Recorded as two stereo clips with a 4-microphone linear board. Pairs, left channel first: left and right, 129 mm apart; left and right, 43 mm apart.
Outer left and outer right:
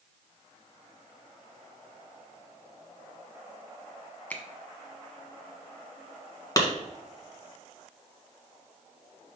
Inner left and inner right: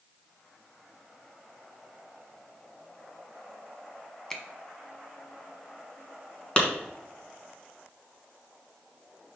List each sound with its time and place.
4.3 s a finger snap: 10° left (ahead or behind), 1.0 m
6.6 s a clap: 25° left (ahead or behind), 1.6 m